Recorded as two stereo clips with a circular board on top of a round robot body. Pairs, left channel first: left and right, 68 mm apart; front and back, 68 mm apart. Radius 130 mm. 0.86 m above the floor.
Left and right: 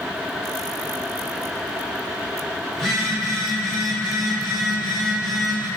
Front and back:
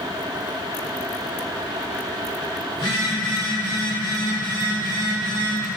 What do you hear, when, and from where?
2.7 s a phone buzzing: 10° left, 1.3 m